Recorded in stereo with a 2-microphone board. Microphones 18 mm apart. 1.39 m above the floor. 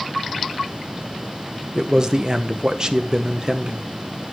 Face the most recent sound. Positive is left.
turn(degrees=-35)  # may be behind; listen again after turning